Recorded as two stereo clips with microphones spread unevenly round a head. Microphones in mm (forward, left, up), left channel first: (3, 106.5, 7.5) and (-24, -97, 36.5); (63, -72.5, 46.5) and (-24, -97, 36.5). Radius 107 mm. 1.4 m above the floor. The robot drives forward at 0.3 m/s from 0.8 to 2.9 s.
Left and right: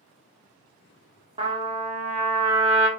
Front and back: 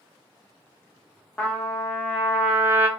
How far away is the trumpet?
About 0.8 m.